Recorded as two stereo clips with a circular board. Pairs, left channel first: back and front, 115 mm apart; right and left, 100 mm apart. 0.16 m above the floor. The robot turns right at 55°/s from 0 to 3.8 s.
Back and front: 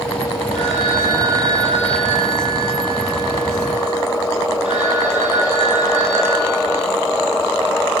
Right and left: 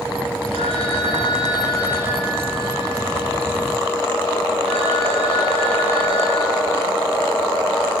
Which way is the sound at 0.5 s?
95° right.